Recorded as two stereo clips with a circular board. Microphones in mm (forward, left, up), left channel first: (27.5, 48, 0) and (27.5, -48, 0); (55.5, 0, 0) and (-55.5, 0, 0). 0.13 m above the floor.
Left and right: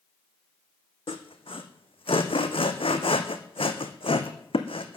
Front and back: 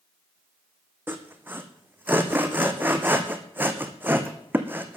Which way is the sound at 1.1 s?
105° left.